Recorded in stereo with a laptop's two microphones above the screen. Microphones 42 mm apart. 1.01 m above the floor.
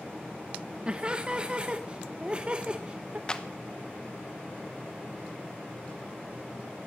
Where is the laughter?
25° right (ahead or behind), 0.7 m.